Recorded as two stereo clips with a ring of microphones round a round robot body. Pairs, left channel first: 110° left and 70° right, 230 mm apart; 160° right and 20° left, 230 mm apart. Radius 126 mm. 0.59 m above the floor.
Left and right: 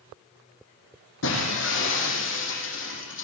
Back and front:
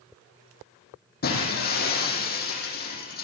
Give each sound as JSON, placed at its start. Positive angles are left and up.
{"t": 1.2, "sound": "breaking glass", "azimuth_deg": 150, "distance_m": 7.0}